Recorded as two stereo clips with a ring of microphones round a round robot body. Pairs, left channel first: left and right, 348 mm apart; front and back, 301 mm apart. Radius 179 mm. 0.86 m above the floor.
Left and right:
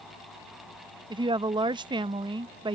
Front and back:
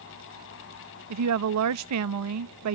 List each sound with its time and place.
1.1 s a woman speaking: 165° right